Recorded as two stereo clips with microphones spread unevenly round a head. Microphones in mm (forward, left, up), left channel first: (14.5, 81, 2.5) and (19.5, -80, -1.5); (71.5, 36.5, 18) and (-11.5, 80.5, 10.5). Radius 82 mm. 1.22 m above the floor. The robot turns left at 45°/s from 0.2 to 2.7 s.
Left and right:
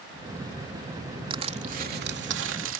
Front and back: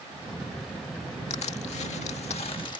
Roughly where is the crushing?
Ahead right.